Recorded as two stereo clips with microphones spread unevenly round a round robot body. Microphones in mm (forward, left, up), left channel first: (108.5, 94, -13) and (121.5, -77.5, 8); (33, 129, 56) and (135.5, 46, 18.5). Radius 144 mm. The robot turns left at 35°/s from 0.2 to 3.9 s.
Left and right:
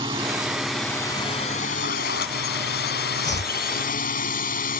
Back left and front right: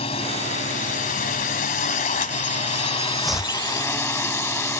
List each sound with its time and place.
0.0 s a drone: 160° right; by 4.8 s 70° left
3.2 s chopping: 55° left; by 3.5 s 40° left